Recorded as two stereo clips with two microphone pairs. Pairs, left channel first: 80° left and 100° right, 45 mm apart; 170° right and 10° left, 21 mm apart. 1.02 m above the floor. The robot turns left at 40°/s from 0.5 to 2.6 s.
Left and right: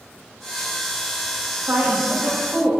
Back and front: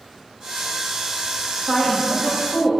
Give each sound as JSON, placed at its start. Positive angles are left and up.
{"t": 1.7, "sound": "a woman speaking", "azimuth_deg": -120, "distance_m": 1.6}